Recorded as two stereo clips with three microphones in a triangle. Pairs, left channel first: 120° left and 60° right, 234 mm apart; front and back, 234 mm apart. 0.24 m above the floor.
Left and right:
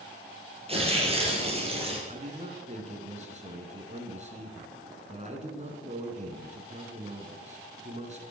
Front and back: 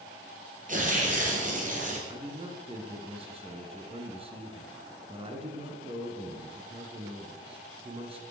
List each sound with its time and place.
0.7 s tearing paper: 125° right, 4.5 m
2.1 s a man speaking: 120° right, 3 m